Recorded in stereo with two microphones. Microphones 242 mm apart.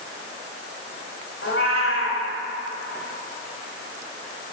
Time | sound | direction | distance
1.4 | a cat meowing | 65° left (ahead or behind) | 1.3 m